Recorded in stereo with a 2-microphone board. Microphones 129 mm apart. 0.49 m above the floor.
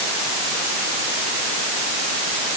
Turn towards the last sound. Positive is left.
No sound to turn to.